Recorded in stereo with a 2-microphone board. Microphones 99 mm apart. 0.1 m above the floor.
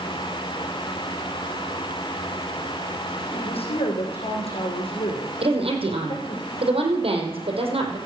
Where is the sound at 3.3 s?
70° left (ahead or behind), 5.5 m.